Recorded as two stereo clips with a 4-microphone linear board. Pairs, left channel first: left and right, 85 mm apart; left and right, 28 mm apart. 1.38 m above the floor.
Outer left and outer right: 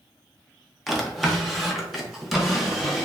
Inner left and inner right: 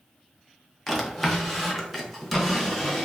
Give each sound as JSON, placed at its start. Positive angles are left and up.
{"t": 0.9, "sound": "a drawer", "side_deg": 0, "distance_m": 0.6}